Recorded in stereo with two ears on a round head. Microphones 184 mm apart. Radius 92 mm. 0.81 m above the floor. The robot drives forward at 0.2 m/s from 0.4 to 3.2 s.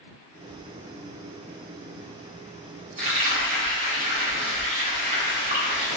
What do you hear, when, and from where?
3.0 s frying: 35° right (ahead or behind), 0.8 m